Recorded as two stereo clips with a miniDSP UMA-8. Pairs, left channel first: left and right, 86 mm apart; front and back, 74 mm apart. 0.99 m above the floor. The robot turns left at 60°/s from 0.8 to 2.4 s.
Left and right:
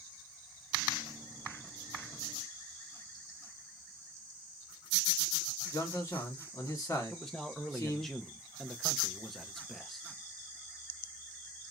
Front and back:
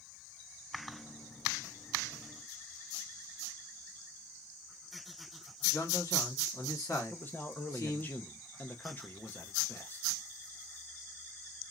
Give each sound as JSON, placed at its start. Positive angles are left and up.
{"t": 5.7, "sound": "a man speaking", "azimuth_deg": 45, "distance_m": 1.5}
{"t": 7.1, "sound": "a man speaking", "azimuth_deg": 5, "distance_m": 0.7}